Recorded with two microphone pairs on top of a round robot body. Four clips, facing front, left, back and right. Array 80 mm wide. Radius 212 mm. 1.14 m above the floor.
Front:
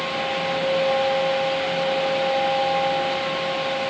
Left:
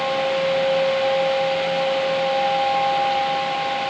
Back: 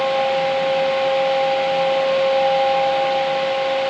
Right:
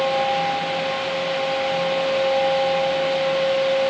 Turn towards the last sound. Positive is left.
No sound to turn to.